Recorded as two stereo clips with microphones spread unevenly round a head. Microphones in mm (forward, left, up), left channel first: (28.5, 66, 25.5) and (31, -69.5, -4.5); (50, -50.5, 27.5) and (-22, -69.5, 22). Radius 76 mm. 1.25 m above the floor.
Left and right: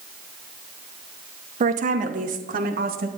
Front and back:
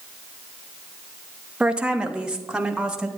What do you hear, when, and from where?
1.6 s a woman speaking: 95° right, 0.8 m; by 3.1 s 85° right, 1.6 m